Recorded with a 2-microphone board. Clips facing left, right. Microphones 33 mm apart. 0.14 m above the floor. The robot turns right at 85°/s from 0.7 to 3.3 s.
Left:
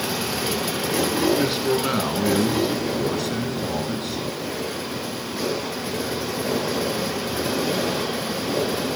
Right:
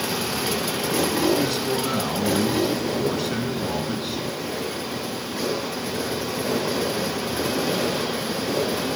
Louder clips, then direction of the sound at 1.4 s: Left 2 dB; 20° left (ahead or behind).